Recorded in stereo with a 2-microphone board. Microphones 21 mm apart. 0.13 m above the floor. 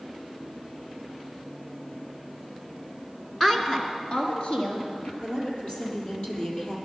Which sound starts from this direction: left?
A woman speaking, at 5.2 s.